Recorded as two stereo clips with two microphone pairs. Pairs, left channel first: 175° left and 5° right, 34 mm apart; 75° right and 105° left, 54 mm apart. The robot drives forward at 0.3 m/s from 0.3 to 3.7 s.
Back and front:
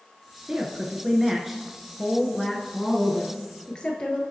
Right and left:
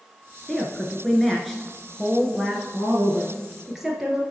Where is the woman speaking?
Straight ahead, 1.1 m; by 4.2 s straight behind, 1.2 m.